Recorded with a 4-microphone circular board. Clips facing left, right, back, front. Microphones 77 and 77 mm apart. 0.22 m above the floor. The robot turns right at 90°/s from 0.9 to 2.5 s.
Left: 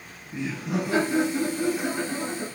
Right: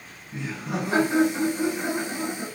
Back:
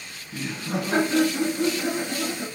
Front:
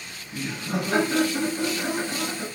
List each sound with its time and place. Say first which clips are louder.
0.3 s laughter: left 2 dB, even; 130° right, 1.3 m; by 2.5 s 10° left, 1.3 m